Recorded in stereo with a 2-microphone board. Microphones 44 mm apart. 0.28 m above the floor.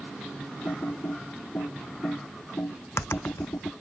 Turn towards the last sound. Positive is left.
turn(degrees=85)